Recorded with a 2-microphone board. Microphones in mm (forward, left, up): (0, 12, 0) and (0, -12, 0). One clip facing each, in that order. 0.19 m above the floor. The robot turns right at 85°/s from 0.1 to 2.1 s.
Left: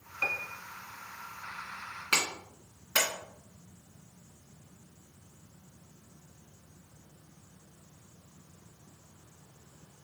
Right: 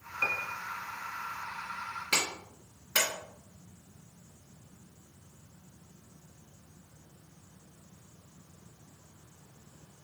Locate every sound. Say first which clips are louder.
0.2 s a piano: right 1 dB; 175° right, 0.5 m; by 0.6 s 145° right, 0.5 m
2.1 s a clap: left 2 dB; 30° left (ahead or behind), 2 m